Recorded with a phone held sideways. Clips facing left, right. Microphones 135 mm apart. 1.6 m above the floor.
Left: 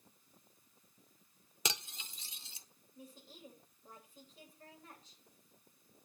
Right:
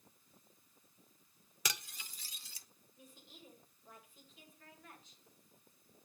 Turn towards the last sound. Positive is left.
turn(degrees=35)  # may be behind; listen again after turning